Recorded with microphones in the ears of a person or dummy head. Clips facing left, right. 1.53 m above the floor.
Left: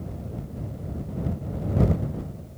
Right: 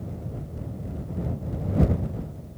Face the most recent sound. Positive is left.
No sound to turn to.